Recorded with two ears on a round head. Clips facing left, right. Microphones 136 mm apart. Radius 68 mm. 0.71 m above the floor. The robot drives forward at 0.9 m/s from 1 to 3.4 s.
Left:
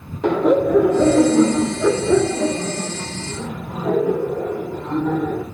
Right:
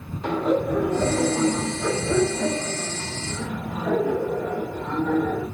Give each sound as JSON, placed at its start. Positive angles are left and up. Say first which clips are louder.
{"t": 0.2, "sound": "laughter", "louder": "left 7 dB", "side_deg": 55, "distance_m": 1.1}